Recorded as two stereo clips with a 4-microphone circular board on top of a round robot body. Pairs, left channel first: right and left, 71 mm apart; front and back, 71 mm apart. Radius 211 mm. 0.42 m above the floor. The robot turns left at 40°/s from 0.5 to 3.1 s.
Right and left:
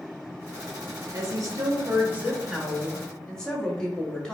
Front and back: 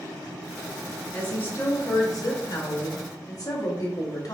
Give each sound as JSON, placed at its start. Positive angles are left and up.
{"t": 1.1, "sound": "a woman speaking", "azimuth_deg": 70, "distance_m": 1.7}